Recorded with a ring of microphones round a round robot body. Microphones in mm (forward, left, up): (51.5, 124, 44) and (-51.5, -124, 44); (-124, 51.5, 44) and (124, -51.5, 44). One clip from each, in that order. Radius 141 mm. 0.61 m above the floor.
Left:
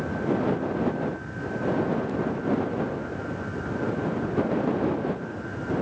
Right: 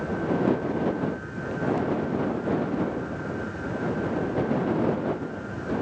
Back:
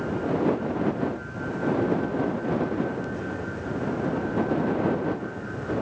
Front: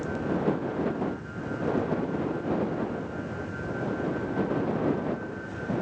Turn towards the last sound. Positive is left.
No sound to turn to.